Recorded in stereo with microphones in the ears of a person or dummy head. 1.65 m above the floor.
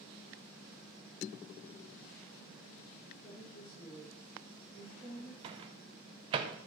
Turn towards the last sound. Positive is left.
turn(degrees=-25)  # may be behind; listen again after turning